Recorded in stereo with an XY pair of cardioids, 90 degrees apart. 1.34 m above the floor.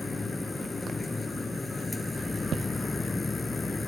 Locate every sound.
0.0 s a machine running: 25° left